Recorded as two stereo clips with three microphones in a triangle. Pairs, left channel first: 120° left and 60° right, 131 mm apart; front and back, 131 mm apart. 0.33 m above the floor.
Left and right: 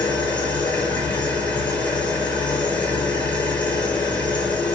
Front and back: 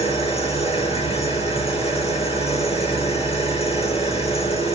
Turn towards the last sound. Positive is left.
turn(degrees=40)